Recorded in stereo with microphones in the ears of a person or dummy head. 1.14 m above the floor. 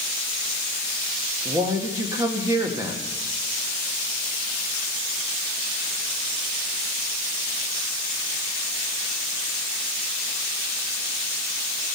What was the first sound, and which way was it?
A man speaking, 15° right (ahead or behind).